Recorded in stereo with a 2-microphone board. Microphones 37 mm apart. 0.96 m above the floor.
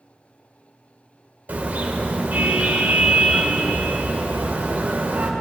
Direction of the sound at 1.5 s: 50° right (ahead or behind).